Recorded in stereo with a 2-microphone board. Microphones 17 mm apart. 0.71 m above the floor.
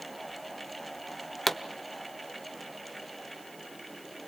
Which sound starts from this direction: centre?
A pop, at 1.5 s.